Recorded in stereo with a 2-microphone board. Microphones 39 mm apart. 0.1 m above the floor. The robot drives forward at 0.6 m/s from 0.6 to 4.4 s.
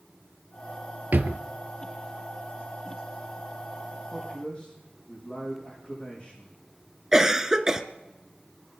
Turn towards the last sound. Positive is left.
turn(degrees=-15)  # may be behind; listen again after turning